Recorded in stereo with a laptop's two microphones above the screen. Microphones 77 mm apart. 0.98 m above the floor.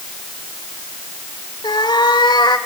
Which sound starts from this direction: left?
A cat meowing, at 1.6 s.